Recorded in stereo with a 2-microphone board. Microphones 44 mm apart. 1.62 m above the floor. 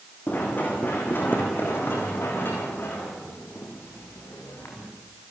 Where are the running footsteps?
50° left (ahead or behind), 5.5 m; by 4.9 s 70° left (ahead or behind), 6.5 m.